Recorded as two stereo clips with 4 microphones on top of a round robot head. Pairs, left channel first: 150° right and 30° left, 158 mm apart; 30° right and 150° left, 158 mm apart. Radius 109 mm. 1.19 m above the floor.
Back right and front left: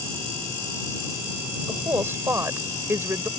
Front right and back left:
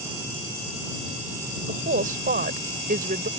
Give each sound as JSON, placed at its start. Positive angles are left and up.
{"t": 1.7, "sound": "a woman speaking", "azimuth_deg": 110}